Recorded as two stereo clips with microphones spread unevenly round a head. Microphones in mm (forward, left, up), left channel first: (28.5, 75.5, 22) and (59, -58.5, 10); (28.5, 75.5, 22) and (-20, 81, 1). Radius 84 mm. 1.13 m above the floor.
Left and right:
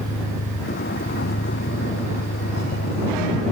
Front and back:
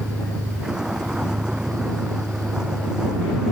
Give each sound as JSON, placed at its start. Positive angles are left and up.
{"t": 0.0, "sound": "a vehicle", "azimuth_deg": 95}